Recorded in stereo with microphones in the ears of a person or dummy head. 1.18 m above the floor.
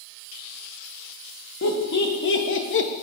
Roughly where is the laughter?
Left.